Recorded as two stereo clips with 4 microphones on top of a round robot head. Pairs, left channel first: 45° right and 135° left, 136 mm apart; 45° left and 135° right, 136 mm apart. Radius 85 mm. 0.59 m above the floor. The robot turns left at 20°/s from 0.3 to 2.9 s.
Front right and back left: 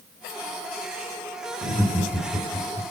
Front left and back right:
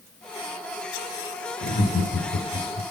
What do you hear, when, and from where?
1.6 s laughter: 65° left, 1.7 m; by 2.8 s 45° left, 1.7 m